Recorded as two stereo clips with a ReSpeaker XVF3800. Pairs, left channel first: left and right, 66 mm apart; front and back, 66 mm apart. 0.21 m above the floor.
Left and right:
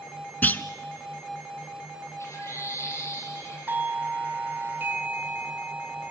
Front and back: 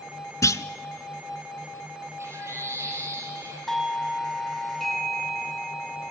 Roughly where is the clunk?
Ahead left.